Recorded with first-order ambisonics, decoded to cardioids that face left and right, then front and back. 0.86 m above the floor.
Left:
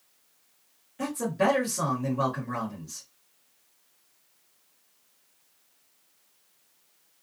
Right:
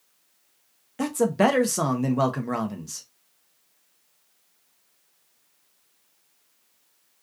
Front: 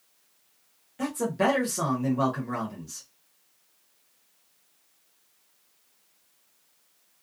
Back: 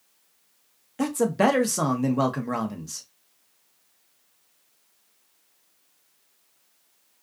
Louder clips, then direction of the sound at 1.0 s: Right 5 dB, back 4 dB; 125° right.